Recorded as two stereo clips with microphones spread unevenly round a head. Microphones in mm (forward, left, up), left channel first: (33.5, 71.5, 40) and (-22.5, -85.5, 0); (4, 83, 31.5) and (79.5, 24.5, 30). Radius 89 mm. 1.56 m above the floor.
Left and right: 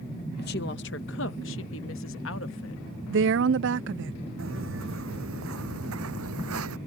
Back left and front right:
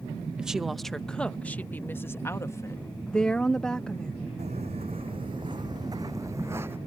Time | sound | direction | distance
0.4 | a woman speaking | 45° left | ?
3.1 | a woman speaking | 130° right | ?
4.4 | footsteps | 90° right | ?